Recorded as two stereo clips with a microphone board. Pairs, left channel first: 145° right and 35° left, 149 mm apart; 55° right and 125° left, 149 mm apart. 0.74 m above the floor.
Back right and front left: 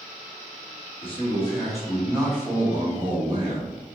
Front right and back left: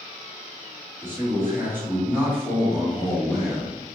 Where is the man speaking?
170° right, 1.2 m; by 3.8 s 40° left, 1.3 m.